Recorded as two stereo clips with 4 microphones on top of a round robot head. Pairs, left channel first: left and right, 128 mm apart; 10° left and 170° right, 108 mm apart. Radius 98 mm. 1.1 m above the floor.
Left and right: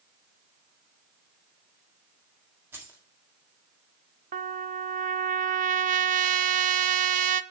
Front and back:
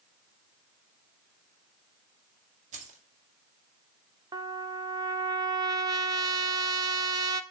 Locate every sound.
2.7 s keys jangling: 165° right, 1.8 m
4.3 s a trumpet: 110° right, 0.5 m